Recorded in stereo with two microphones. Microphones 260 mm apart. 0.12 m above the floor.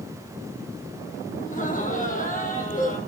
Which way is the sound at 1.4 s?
30° left (ahead or behind).